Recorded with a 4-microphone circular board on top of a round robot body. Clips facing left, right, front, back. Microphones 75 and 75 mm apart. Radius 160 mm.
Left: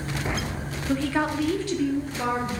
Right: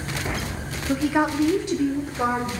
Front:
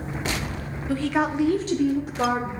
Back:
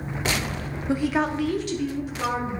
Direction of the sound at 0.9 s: 160° right.